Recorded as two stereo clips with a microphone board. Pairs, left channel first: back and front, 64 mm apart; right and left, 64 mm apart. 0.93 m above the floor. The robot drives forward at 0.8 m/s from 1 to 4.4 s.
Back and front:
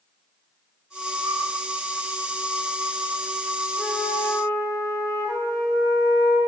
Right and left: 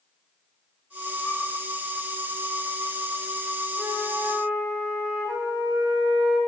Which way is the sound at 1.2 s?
25° right.